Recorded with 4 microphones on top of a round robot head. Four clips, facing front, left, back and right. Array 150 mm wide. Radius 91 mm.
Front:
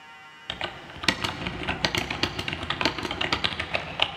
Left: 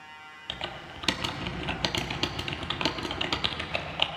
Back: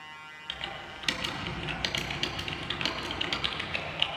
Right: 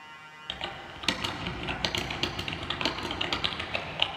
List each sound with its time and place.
0.5 s typing on a keyboard: 5° left, 1.1 m